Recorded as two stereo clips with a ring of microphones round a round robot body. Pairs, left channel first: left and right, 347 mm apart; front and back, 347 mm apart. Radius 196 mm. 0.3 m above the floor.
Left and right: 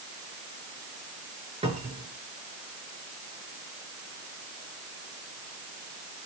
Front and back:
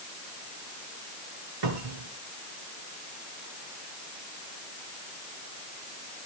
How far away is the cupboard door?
About 3 m.